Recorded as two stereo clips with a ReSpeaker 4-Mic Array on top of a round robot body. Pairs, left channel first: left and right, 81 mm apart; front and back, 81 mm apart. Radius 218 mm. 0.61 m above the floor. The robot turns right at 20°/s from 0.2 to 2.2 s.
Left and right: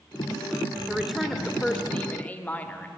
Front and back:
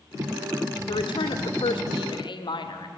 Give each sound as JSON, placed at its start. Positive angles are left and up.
{"t": 0.9, "sound": "a woman speaking", "azimuth_deg": -5, "distance_m": 1.9}